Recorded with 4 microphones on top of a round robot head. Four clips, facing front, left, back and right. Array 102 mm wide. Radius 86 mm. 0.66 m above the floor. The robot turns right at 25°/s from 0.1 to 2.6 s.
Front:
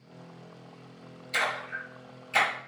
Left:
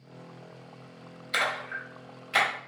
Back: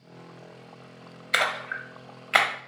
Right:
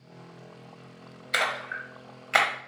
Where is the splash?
175° right, 1.1 m; by 2.5 s 145° right, 1.1 m.